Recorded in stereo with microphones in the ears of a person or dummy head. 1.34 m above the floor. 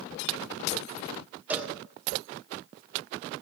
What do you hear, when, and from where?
1.5 s a cowbell: 5° right (ahead or behind), 2 m